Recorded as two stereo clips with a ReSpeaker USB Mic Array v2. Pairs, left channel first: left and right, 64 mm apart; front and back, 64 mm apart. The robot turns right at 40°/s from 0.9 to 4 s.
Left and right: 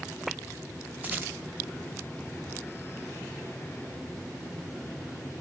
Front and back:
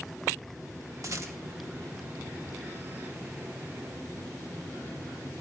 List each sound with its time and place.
1.0 s a rattle: 155° right, 1.1 m; by 1.4 s 145° right, 1.1 m